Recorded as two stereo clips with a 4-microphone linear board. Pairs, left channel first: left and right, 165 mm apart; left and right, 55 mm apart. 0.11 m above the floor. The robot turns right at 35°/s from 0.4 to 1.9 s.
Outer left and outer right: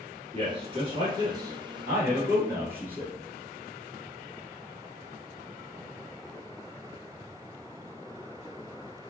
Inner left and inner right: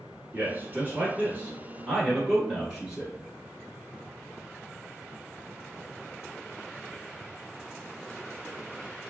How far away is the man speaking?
About 1.3 m.